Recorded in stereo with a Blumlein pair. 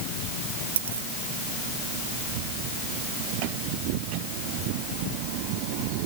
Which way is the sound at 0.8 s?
65° right.